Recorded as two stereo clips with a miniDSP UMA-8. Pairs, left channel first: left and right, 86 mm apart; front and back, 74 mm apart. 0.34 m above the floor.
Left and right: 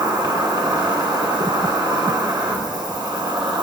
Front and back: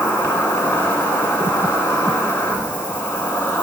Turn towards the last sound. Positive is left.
turn(degrees=-65)